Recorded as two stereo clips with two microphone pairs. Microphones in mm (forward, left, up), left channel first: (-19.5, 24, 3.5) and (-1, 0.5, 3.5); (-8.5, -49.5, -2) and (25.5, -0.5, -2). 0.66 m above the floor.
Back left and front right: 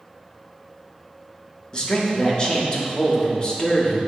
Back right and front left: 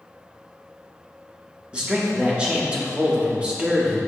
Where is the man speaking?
110° left, 0.6 m.